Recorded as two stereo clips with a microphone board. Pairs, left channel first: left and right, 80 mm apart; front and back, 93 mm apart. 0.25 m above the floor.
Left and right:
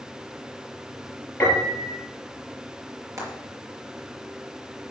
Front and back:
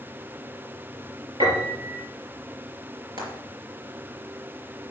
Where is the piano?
155° left, 6 m.